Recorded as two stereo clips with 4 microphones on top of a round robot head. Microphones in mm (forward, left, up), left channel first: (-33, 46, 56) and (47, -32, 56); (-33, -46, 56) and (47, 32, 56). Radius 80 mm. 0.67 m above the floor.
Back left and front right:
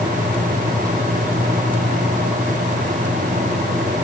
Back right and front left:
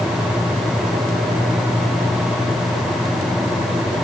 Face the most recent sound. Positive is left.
No sound to turn to.